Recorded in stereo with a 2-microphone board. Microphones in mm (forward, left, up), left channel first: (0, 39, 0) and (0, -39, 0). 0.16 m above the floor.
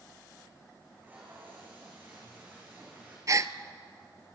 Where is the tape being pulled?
25° right (ahead or behind), 5 m.